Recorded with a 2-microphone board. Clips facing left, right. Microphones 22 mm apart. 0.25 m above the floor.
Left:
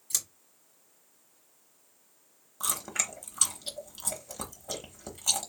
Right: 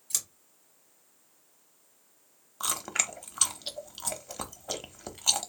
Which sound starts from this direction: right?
Chewing, at 2.6 s.